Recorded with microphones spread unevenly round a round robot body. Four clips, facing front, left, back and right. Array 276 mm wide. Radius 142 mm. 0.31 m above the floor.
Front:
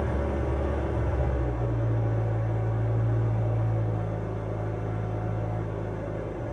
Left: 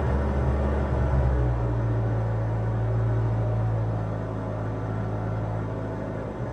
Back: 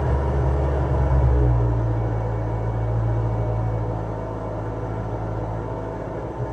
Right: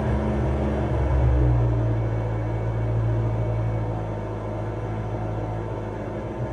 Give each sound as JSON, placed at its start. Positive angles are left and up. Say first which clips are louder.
{"t": 0.0, "sound": "an engine running", "louder": "right 3 dB, back 4 dB", "azimuth_deg": -155, "distance_m": 0.9}